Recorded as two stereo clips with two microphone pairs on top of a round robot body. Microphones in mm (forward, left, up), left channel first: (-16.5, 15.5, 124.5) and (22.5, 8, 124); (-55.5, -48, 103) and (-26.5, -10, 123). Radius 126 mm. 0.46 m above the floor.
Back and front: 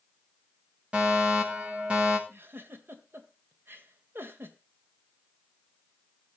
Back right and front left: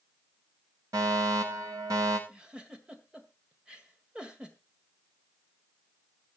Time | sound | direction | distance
0.9 | a fire alarm | 50° left | 6 m
2.3 | a giggle | 25° right | 2.0 m